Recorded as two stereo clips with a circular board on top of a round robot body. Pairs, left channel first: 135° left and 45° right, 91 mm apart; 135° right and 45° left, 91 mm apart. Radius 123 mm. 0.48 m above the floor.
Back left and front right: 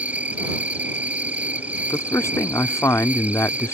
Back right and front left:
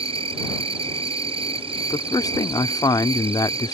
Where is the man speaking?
170° right.